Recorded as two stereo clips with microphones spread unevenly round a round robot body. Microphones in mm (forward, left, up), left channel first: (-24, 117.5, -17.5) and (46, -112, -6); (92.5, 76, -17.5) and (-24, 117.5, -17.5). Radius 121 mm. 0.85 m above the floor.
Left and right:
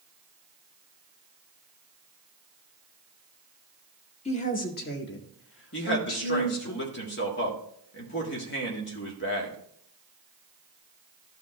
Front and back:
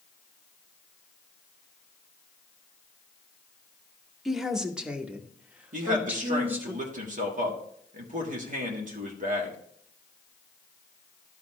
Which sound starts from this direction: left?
A woman speaking, at 4.2 s.